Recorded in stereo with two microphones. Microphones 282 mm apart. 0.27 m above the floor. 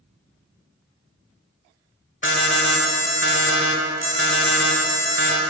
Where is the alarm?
45° left (ahead or behind), 0.8 m.